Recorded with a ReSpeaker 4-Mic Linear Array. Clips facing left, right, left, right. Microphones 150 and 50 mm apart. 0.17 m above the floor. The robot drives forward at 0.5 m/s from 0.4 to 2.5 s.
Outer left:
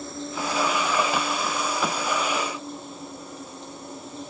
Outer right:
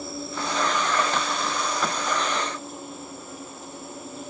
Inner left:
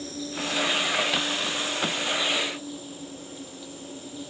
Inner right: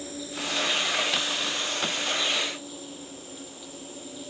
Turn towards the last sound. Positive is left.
turn(degrees=-5)  # may be behind; listen again after turning